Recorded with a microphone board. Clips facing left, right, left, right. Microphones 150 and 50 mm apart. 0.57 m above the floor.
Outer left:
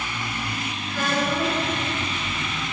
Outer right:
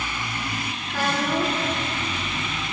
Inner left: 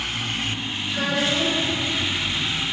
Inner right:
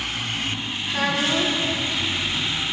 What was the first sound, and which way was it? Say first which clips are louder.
A child speaking: even, inner right 1 dB; 75° right (ahead or behind).